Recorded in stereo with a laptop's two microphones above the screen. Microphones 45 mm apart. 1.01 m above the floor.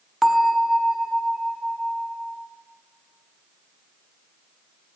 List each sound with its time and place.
0.2 s a bell: centre (ahead or behind), 0.6 m